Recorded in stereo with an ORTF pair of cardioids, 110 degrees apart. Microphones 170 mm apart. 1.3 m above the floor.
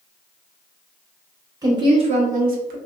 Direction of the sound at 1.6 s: 20° right.